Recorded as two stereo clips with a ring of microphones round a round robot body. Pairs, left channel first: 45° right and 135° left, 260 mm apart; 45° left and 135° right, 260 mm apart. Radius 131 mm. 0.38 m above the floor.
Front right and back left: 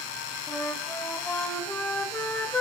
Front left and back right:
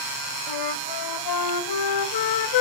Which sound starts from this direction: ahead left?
A flute, at 0.5 s.